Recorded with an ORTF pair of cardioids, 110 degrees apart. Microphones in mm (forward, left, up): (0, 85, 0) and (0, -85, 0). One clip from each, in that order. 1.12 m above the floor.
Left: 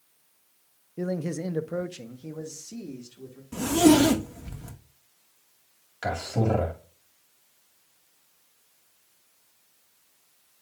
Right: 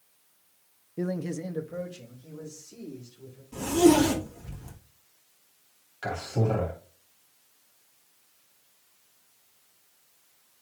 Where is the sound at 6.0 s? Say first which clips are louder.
Left 2 dB; 30° left, 2.5 m.